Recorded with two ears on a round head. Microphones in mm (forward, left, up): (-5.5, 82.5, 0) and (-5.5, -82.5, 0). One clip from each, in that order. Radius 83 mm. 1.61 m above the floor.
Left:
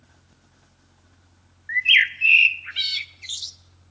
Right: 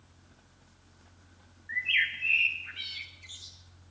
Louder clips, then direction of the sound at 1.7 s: Left 10 dB; 75° left (ahead or behind).